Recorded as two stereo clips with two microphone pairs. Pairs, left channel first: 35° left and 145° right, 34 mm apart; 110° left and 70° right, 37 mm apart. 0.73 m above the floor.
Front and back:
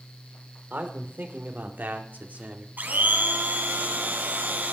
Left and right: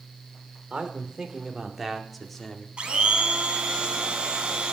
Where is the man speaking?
130° right, 2.5 m; by 2.7 s straight behind, 1.7 m.